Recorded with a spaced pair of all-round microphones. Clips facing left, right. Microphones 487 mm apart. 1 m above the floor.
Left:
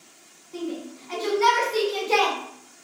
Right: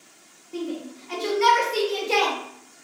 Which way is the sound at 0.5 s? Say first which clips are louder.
Right 1 dB; 50° right (ahead or behind).